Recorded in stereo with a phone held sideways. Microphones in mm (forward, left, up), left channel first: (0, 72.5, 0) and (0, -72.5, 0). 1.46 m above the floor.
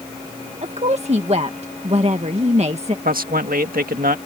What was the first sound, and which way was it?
A woman speaking, 50° right (ahead or behind).